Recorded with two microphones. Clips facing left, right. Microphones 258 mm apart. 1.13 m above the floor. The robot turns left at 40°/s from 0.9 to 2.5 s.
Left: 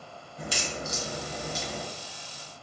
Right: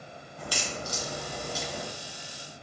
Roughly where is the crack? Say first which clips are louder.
Left 2 dB; left.